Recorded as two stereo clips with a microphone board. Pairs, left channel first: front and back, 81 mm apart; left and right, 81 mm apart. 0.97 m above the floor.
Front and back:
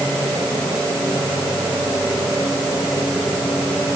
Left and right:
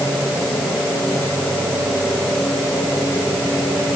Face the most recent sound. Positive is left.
No sound to turn to.